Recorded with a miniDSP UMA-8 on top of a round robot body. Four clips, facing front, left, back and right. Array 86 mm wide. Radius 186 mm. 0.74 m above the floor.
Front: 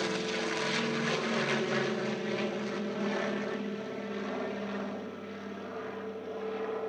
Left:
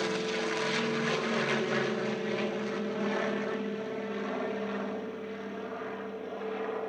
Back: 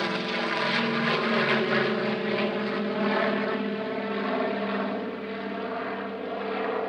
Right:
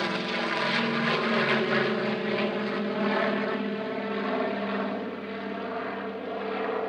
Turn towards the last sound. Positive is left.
turn(degrees=-150)